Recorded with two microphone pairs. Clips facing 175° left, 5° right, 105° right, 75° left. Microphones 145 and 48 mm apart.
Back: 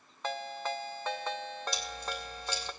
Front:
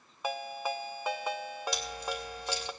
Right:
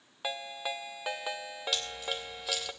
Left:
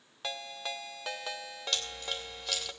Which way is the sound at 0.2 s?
60° right.